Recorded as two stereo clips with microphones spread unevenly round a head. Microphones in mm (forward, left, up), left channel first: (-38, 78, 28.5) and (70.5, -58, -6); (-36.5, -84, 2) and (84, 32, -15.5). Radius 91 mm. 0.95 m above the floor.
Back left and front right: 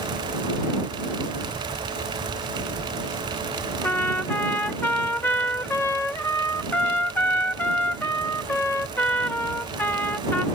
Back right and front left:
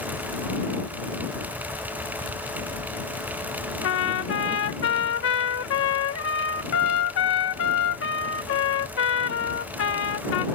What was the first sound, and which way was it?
A trumpet, 145° right.